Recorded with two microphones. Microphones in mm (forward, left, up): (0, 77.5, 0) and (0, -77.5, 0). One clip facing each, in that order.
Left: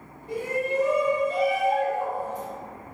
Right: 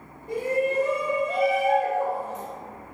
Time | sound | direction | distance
0.3 | a shout | 45° right (ahead or behind) | 2.5 m